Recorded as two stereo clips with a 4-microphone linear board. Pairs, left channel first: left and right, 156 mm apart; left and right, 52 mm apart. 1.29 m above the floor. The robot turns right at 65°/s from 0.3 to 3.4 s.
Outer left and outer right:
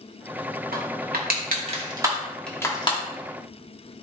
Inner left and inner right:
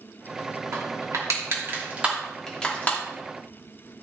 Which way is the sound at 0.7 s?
75° right (ahead or behind).